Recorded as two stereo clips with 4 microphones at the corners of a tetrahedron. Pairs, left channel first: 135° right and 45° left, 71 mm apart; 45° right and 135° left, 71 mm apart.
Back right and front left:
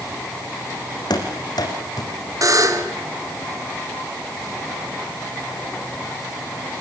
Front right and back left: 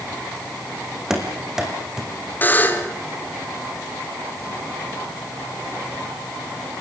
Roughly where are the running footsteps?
Behind right.